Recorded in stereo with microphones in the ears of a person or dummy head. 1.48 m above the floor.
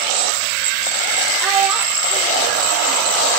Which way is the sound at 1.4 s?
5° right (ahead or behind).